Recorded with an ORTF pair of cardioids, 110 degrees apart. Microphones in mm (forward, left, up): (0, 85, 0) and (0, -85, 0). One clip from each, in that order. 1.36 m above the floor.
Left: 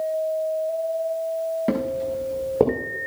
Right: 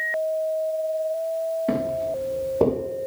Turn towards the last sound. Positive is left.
turn(degrees=65)